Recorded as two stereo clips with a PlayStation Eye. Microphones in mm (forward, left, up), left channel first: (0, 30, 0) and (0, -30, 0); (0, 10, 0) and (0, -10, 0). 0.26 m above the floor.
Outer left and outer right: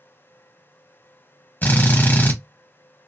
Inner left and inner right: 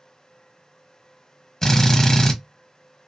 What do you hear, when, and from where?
1.6 s a drill: 30° left (ahead or behind), 1.1 m